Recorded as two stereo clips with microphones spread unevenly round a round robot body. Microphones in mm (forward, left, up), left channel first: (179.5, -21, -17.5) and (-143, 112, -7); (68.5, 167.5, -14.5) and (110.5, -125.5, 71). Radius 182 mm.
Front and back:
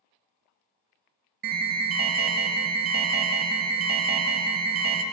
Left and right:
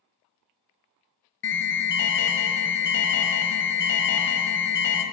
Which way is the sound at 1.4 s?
100° left.